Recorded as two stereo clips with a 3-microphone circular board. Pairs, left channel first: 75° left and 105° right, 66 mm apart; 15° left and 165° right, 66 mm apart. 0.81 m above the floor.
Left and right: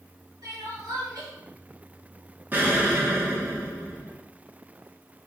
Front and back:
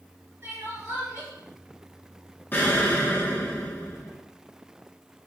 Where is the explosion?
45° right, 0.6 m.